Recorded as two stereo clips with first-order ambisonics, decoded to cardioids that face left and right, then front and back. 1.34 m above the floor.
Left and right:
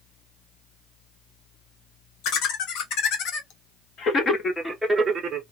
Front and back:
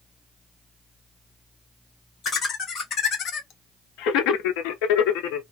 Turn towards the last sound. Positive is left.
turn(degrees=-35)